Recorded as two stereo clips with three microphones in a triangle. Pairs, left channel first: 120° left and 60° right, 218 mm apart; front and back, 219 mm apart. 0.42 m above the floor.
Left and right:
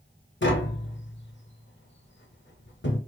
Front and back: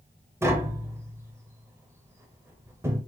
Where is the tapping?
105° left, 0.6 m.